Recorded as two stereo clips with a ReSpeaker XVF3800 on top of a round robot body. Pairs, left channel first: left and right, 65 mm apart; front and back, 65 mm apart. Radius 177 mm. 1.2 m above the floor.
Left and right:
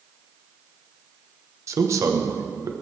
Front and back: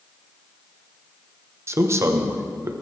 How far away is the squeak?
I don't hear a squeak.